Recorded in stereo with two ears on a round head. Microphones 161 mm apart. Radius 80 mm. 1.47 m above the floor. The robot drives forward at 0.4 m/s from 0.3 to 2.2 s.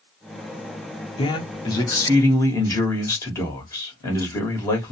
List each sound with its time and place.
1.2 s a man speaking: 30° left (ahead or behind), 0.6 m; by 4.9 s 15° left (ahead or behind), 1.0 m